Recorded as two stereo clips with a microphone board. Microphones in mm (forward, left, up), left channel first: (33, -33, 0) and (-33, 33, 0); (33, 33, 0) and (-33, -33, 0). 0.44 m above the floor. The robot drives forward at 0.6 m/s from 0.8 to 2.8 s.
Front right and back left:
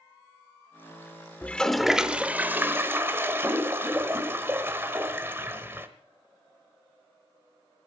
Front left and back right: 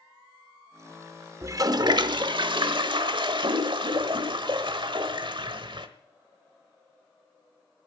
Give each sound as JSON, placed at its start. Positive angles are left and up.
{"t": 1.4, "sound": "a toilet flushing", "azimuth_deg": -105, "distance_m": 0.6}